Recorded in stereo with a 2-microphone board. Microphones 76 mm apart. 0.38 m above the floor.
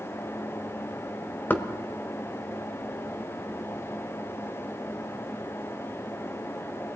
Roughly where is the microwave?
No microwave in this recording.